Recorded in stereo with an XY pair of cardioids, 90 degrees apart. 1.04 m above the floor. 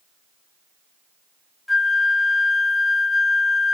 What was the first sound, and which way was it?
A flute, 20° left.